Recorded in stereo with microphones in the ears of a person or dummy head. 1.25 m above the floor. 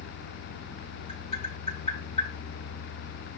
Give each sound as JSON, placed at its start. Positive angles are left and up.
{"t": 1.1, "sound": "tapping", "side_deg": 35, "distance_m": 8.0}